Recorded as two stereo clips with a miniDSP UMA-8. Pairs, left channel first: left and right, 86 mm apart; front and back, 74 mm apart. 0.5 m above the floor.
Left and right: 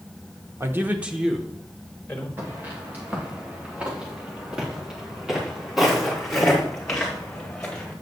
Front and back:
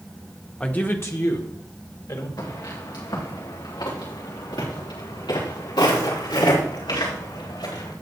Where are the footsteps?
25° right, 4 m; by 7.9 s 10° left, 5.5 m.